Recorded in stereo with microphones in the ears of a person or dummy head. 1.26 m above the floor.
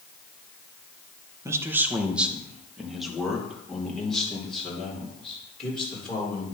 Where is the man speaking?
15° right (ahead or behind), 0.8 m; by 6.5 s 5° left (ahead or behind), 4.5 m.